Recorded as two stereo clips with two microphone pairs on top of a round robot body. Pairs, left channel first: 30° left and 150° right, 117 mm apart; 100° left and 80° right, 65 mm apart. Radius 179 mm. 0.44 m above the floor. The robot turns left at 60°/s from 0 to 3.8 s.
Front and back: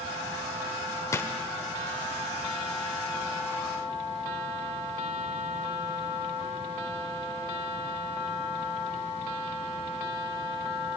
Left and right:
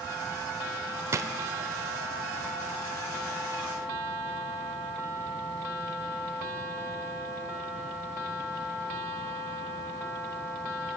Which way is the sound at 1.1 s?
35° right.